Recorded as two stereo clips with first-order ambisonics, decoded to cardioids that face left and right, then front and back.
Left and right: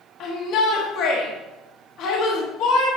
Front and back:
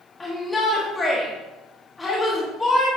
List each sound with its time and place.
0.2 s a shout: 75° left, 1.1 m